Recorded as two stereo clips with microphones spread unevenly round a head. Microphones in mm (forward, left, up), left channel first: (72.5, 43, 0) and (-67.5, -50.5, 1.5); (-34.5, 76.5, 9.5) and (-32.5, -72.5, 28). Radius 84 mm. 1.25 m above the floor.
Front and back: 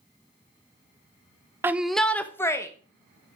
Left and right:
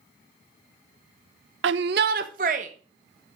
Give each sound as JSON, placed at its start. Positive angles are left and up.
{"t": 1.6, "sound": "a shout", "azimuth_deg": -70, "distance_m": 0.6}